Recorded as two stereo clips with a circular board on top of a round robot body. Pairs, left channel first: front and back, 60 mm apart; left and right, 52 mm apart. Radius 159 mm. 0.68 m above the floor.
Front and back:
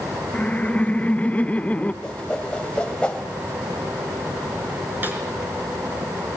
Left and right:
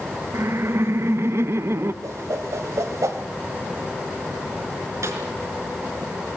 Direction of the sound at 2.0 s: 75° right.